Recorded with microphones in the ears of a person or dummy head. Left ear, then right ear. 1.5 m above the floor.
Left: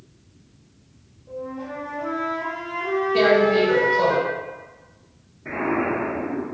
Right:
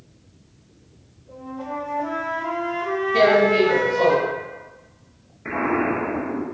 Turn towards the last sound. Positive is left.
turn(degrees=-65)  # may be behind; listen again after turning